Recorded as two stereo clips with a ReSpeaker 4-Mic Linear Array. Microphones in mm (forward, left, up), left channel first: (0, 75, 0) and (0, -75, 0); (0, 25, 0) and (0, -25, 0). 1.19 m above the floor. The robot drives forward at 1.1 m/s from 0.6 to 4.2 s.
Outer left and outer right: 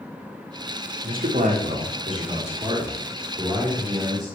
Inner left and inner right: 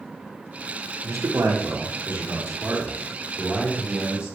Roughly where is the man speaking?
Right.